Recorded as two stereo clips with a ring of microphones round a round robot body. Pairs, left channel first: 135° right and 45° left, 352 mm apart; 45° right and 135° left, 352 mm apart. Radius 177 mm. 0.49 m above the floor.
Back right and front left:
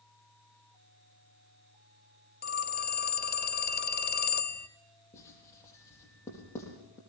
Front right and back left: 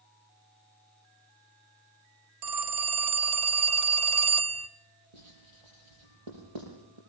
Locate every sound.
2.4 s a phone ringing: 165° left, 1.1 m
5.1 s writing: 140° left, 6 m